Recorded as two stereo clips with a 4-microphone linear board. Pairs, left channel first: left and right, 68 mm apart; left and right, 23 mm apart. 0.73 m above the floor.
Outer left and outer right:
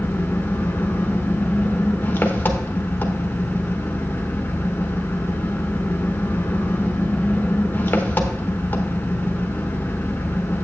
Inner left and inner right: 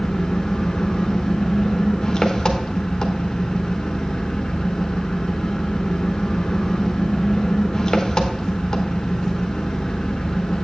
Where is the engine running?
30° left (ahead or behind), 1.0 m.